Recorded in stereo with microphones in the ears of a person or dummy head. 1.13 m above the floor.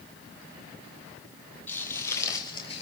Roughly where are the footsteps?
Centre.